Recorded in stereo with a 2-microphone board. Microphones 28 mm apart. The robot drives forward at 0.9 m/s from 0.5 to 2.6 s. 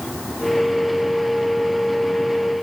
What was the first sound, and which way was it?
Only background noise.